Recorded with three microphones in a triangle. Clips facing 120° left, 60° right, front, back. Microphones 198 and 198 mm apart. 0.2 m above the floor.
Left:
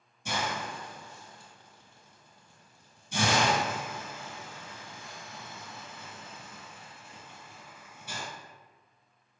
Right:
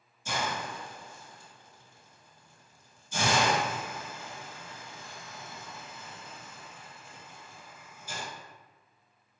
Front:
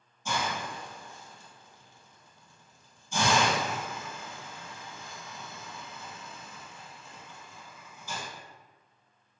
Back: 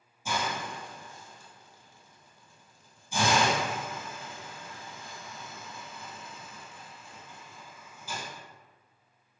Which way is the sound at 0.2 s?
100° left.